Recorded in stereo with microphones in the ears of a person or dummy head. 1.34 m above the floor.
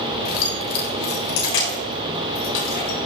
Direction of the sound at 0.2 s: 50° left (ahead or behind).